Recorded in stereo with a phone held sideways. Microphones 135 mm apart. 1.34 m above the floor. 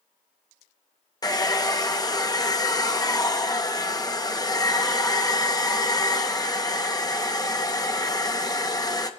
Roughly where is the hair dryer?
Left.